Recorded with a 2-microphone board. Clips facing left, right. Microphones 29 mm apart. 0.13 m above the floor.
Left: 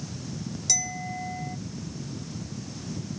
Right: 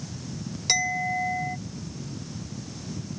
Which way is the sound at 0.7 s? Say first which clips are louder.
Right 8 dB; 45° right (ahead or behind).